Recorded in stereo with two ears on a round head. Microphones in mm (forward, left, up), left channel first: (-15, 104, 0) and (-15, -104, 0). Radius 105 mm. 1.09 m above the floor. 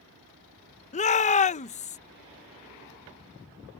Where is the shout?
30° left (ahead or behind).